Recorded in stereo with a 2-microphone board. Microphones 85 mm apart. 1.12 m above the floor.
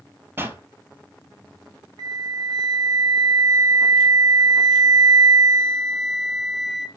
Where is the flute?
55° right (ahead or behind), 1.7 m.